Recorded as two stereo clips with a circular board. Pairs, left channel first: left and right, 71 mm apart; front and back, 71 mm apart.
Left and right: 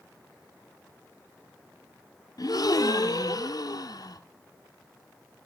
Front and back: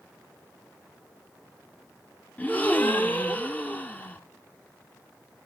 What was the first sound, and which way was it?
A gasp, 65° left.